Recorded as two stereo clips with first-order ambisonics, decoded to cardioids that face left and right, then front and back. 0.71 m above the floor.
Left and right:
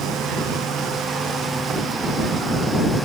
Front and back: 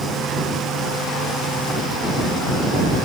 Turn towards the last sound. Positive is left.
No sound to turn to.